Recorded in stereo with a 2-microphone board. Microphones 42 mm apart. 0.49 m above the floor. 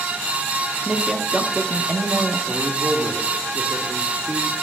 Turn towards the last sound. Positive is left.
turn(degrees=-20)  # may be behind; listen again after turning